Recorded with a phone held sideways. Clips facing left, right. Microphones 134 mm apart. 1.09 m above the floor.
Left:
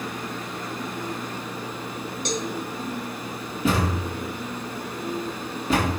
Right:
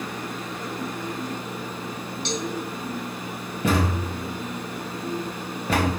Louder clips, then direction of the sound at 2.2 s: Even; 45° left (ahead or behind).